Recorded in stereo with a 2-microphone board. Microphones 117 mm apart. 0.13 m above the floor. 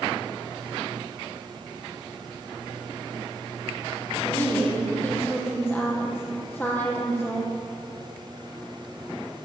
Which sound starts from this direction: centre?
A woman speaking, at 4.2 s.